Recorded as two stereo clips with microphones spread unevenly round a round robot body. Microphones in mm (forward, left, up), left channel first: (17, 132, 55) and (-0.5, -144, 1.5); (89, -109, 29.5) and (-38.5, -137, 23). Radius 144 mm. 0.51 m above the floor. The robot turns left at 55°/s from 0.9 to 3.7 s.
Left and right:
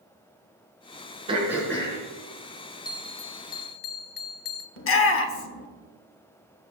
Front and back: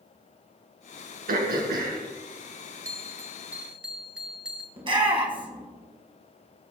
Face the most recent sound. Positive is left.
turn(degrees=135)